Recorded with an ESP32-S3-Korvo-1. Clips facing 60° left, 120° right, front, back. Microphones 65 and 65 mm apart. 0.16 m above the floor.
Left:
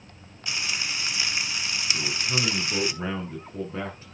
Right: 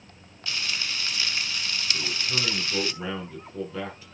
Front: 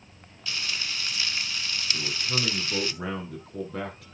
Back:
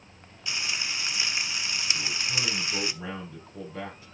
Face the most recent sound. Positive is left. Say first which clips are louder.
# left 3 dB, front 1 dB
turn(degrees=5)